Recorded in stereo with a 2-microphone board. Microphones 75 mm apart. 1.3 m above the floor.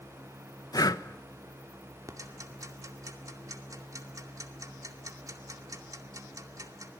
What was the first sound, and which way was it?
Breathing, 60° left (ahead or behind).